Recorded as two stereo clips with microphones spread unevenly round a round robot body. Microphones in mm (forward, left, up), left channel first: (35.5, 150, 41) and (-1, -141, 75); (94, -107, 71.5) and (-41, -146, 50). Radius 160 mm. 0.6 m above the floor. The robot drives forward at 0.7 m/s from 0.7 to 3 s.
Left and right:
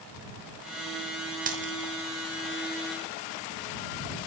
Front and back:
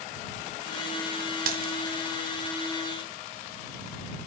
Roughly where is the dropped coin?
Behind.